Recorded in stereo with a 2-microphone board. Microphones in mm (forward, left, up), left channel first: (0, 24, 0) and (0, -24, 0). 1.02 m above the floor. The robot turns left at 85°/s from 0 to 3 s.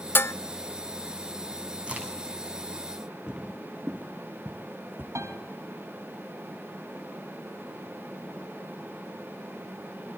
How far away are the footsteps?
About 2.5 m.